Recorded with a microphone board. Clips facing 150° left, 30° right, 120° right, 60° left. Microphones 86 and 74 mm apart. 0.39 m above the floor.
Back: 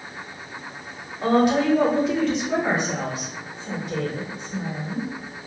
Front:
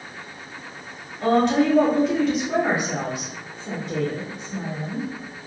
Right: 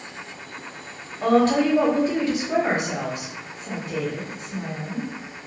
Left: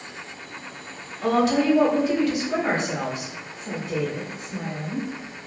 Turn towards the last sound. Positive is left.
turn(degrees=20)